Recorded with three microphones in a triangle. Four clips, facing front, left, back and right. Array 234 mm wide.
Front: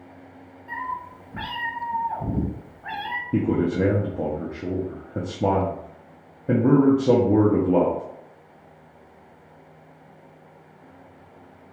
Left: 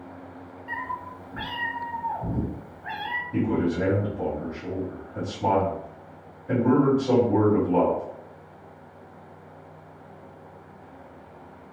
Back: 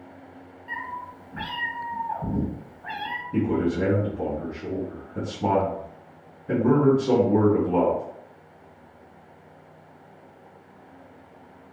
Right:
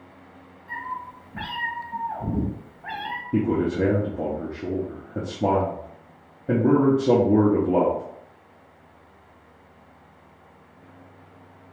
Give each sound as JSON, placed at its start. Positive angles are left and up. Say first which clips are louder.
{"t": 0.7, "sound": "a cat meowing", "louder": "even, front 3 dB", "azimuth_deg": 50, "distance_m": 0.8}
{"t": 3.3, "sound": "a man speaking", "louder": "right 2 dB, front 2 dB", "azimuth_deg": -35, "distance_m": 0.8}